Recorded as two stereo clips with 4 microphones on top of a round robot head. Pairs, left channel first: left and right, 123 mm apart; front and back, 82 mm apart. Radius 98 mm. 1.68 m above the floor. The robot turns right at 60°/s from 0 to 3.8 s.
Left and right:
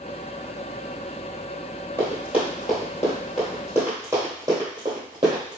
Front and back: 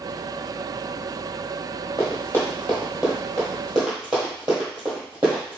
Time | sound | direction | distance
2.0 | running footsteps | 45° right | 1.8 m